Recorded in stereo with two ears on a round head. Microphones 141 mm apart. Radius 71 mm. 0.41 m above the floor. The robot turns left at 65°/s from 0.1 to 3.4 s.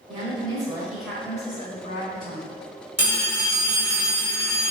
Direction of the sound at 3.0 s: 20° right (ahead or behind).